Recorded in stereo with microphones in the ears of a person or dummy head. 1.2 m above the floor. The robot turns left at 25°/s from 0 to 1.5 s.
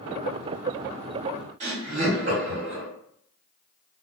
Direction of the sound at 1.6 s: 50° right (ahead or behind).